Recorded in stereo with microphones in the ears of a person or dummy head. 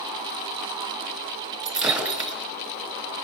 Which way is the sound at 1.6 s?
5° right (ahead or behind).